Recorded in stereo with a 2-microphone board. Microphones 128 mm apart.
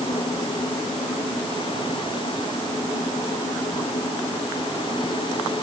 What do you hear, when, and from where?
Only background noise.